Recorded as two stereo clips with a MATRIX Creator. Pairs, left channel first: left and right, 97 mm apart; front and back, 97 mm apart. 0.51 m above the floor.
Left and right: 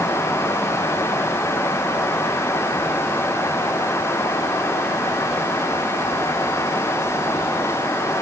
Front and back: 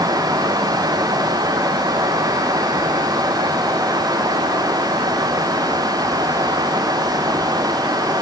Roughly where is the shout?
I don't hear a shout.